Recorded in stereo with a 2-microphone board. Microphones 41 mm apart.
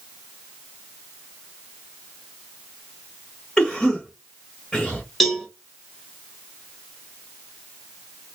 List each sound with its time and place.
3.6 s a cough: 10° left (ahead or behind), 1.2 m
5.2 s a cowbell: centre (ahead or behind), 1.2 m